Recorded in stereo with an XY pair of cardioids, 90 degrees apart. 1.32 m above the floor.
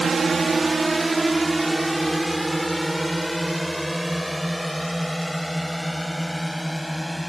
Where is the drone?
50° right; by 7.3 s 10° right.